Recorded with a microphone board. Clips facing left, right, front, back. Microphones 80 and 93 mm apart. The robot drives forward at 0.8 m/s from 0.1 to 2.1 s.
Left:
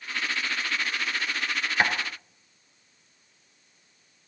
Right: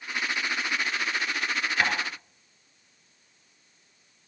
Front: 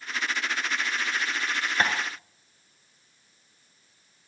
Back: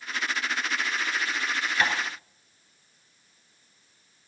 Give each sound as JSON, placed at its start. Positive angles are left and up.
{"t": 1.8, "sound": "tapping", "azimuth_deg": 35, "distance_m": 1.7}